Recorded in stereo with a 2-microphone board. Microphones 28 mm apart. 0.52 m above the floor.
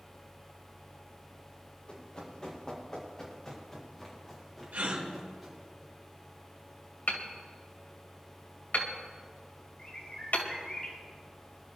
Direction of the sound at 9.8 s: 30° left (ahead or behind).